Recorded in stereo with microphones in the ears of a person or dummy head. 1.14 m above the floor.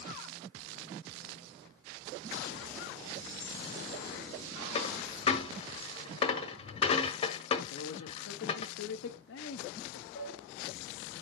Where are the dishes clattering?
60° left (ahead or behind), 3 m.